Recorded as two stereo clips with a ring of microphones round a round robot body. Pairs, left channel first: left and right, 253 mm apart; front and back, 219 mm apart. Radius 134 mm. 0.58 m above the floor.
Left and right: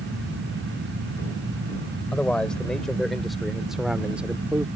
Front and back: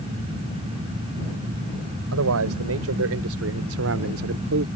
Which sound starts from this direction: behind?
A man speaking, at 2.1 s.